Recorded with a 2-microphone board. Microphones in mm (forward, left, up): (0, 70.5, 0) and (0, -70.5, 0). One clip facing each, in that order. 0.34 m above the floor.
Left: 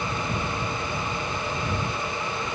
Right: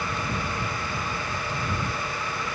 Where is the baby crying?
I don't hear a baby crying.